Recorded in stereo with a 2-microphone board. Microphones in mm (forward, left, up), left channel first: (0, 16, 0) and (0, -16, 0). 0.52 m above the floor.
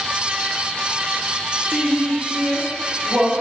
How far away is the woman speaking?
About 0.8 m.